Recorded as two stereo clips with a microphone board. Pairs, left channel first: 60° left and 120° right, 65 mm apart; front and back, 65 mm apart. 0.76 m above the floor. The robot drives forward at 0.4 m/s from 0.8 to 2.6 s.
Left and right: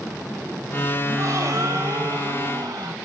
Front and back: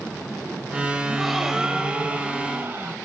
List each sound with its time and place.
1.1 s a gasp: 90° right, 1.0 m; by 3.0 s 125° right, 1.1 m